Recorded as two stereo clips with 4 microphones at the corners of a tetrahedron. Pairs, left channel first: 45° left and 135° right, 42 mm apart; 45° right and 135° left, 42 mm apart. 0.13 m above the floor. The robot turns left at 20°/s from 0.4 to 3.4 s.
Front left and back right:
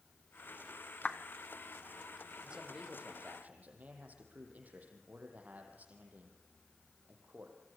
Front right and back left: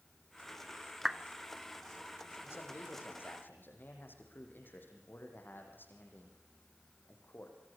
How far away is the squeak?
I don't hear a squeak.